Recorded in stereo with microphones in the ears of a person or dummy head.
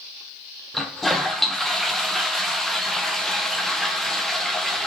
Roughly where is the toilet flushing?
Centre.